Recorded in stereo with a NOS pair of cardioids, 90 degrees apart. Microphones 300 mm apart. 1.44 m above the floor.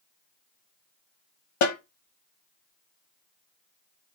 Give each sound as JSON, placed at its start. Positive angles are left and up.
{"t": 1.6, "sound": "a snare drum", "azimuth_deg": 70, "distance_m": 1.1}